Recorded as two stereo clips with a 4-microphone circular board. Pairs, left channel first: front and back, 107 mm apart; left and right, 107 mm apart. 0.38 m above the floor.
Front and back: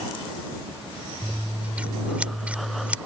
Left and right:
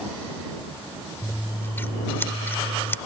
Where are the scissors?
120° left.